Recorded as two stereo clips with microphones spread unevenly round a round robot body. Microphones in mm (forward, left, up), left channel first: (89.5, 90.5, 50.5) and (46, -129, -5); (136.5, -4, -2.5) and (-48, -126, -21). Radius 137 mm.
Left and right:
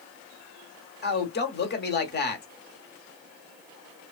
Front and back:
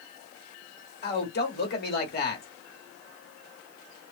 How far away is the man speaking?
About 1.0 m.